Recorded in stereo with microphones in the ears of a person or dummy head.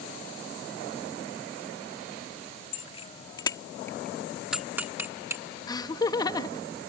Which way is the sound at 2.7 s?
30° left (ahead or behind).